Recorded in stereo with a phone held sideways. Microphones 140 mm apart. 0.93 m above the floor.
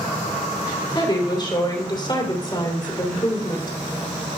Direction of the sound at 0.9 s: 35° left (ahead or behind).